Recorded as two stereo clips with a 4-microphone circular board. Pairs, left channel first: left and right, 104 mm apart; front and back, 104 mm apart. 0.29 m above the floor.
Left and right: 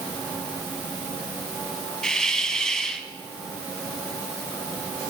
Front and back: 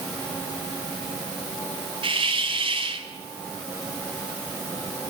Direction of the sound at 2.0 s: 175° left.